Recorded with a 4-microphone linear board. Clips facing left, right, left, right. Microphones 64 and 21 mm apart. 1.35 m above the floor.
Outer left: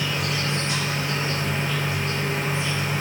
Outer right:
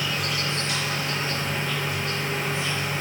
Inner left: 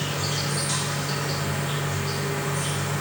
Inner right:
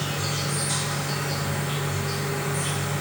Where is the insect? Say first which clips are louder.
Outer left 1 dB, inner left 1 dB; 30° left (ahead or behind), 2.5 m.